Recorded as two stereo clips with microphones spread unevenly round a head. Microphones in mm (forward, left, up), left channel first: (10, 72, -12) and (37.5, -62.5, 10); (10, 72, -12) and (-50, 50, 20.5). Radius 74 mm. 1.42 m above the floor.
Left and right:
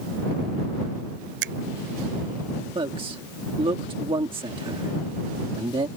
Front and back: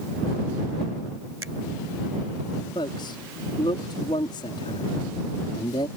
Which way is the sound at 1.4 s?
85° right.